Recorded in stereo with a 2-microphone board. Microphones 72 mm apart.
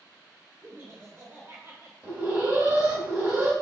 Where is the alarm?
30° right (ahead or behind), 1.3 m.